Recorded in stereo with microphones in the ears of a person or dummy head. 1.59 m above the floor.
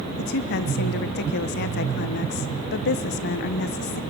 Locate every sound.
0.2 s a woman speaking: 55° left (ahead or behind), 0.9 m